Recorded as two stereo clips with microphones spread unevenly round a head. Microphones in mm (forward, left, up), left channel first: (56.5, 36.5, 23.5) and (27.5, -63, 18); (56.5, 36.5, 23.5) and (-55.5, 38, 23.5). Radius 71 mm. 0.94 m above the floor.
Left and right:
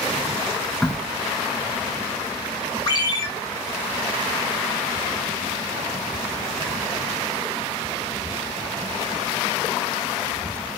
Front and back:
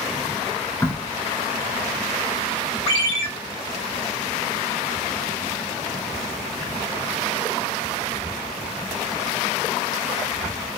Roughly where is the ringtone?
Ahead left.